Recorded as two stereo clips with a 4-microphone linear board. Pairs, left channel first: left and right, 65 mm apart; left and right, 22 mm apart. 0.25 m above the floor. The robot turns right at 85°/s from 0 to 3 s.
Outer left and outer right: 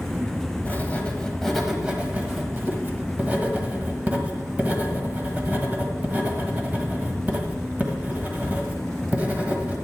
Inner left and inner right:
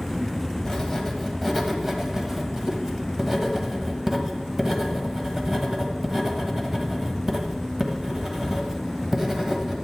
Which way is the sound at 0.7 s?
30° left (ahead or behind).